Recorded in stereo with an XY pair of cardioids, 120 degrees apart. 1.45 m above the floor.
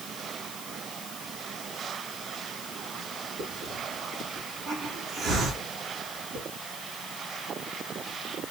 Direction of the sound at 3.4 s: 60° right.